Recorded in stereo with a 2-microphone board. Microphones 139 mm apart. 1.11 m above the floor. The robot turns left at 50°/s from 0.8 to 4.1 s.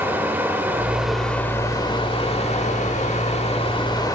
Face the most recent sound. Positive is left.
turn(degrees=35)